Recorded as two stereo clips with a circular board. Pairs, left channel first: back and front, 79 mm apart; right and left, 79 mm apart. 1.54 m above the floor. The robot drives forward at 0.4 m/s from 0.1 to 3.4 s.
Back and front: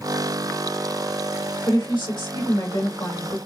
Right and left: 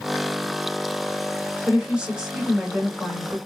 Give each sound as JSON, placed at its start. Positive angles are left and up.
{"t": 1.7, "sound": "a woman speaking", "azimuth_deg": 165, "distance_m": 1.6}